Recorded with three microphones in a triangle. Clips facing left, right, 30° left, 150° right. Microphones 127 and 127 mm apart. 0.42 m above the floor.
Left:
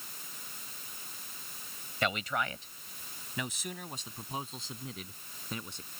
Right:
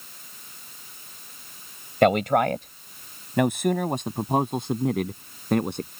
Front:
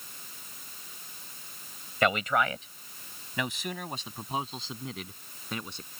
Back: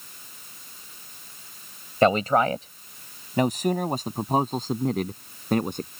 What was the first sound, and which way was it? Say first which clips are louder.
A man speaking: right 15 dB, back 7 dB; 100° right.